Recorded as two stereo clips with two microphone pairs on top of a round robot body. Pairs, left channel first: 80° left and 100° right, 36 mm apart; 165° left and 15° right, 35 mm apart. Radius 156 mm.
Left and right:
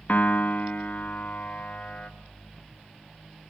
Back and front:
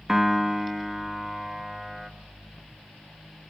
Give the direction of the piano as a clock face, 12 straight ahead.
10 o'clock.